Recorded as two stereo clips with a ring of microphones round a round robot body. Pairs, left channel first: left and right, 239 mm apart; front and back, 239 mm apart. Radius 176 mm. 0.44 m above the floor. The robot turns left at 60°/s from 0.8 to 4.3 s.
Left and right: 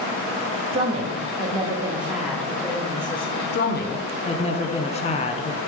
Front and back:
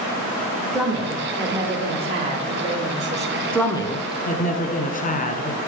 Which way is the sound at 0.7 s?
95° right.